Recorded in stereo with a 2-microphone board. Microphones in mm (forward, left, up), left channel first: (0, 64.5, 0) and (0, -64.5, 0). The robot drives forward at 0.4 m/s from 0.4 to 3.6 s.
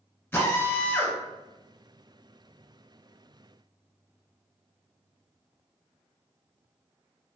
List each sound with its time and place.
0.3 s a drill: 15° left (ahead or behind), 1.1 m; by 1.2 s 10° left (ahead or behind), 1.3 m